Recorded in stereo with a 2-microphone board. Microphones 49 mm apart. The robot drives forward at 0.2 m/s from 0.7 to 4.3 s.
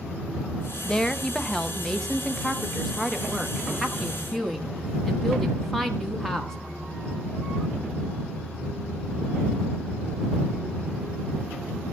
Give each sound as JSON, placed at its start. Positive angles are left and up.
{"t": 0.8, "sound": "a woman speaking", "side_deg": 20, "distance_m": 0.6}